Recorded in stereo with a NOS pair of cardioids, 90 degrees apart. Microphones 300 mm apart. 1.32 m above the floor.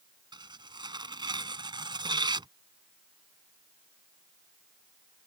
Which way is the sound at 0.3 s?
15° right.